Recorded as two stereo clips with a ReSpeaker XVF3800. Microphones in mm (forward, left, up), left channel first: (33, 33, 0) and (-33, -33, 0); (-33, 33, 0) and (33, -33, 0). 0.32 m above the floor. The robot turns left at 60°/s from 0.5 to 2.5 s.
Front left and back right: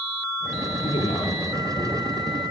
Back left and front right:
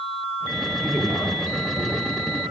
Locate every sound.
0.8 s a man speaking: 50° left, 7 m; by 2.0 s 25° right, 7 m